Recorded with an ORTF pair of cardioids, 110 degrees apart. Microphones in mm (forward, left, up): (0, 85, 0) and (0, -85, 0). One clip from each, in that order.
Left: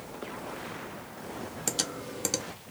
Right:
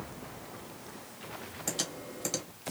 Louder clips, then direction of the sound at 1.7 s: Left 3 dB; 35° left.